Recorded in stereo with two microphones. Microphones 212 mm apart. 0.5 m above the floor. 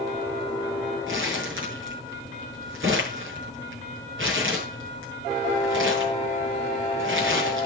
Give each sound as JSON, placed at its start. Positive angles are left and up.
{"t": 1.1, "sound": "crumpling", "side_deg": -80, "distance_m": 7.0}